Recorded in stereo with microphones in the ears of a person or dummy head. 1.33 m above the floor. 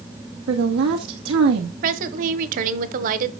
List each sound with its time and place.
0.5 s a woman speaking: 80° right, 1.0 m
1.8 s a woman speaking: 45° right (ahead or behind), 1.0 m